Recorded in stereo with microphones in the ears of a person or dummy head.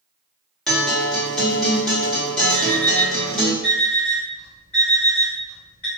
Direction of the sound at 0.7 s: 5° left (ahead or behind).